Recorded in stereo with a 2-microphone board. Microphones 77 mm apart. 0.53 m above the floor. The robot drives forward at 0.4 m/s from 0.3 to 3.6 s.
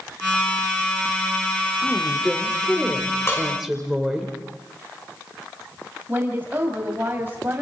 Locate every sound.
1.8 s a woman speaking: 5° right (ahead or behind), 1.8 m
3.3 s dishes clattering: 35° left (ahead or behind), 4.5 m
6.1 s a woman speaking: 25° right (ahead or behind), 3 m